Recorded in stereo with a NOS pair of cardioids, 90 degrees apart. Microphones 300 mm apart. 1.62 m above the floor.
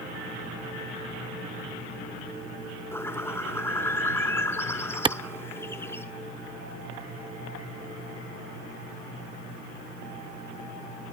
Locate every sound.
2.9 s a bird: 10° left, 3 m
5.0 s a clap: 15° right, 0.6 m